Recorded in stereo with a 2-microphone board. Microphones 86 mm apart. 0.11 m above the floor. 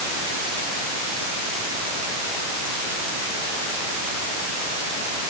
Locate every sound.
Only background noise.